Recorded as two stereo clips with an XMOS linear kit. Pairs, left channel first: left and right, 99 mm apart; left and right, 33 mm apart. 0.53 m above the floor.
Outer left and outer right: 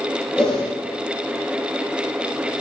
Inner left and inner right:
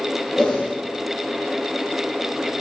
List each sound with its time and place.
0.4 s a whoosh: 10° left (ahead or behind), 7.5 m